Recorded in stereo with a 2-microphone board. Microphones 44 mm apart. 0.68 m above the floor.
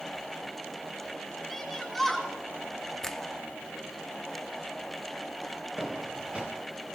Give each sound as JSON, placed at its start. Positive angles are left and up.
{"t": 1.5, "sound": "a shout", "side_deg": 5, "distance_m": 10.0}
{"t": 3.0, "sound": "a finger snap", "side_deg": 10, "distance_m": 1.0}
{"t": 5.8, "sound": "footsteps", "side_deg": -25, "distance_m": 4.0}